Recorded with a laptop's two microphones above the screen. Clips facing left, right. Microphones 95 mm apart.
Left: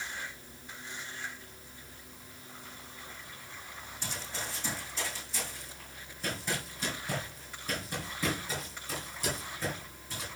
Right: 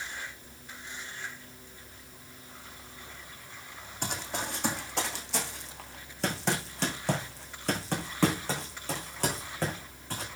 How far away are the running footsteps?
About 3.5 m.